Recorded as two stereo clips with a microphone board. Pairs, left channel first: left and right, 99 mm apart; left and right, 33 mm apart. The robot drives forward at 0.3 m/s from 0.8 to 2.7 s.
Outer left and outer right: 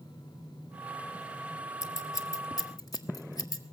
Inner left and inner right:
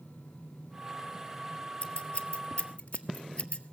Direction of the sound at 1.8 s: 35° left (ahead or behind).